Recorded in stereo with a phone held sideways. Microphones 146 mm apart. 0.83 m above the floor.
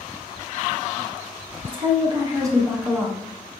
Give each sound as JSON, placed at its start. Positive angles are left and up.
{"t": 1.6, "sound": "a woman speaking", "side_deg": -40, "distance_m": 1.2}